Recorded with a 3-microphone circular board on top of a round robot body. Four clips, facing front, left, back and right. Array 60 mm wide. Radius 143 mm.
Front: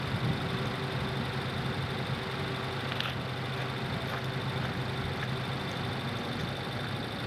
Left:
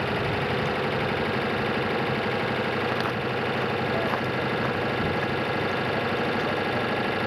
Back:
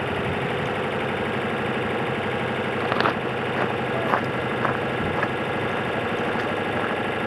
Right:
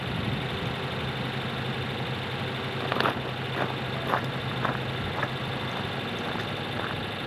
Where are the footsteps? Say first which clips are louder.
Left 1 dB, back 13 dB; 170° right; by 7.0 s 175° right.